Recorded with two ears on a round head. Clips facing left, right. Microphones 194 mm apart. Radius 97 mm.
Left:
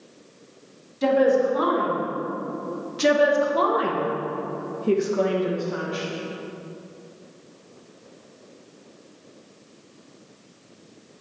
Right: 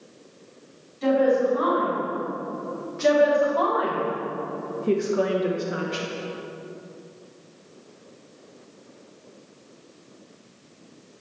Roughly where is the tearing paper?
No tearing paper in this recording.